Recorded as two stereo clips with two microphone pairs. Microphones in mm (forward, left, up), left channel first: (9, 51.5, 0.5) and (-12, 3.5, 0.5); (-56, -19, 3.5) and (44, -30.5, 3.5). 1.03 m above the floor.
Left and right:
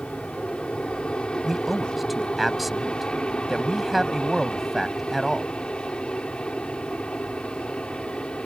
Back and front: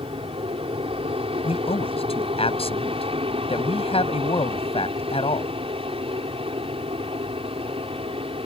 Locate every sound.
0.0 s an aircraft: 5° right
1.4 s a man speaking: 155° left